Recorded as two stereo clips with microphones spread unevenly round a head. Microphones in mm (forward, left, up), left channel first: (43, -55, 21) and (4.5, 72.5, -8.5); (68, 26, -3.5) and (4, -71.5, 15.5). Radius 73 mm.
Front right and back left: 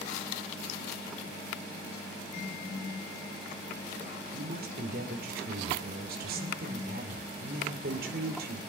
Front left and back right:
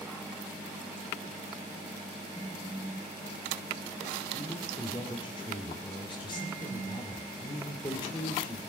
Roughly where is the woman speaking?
Behind left.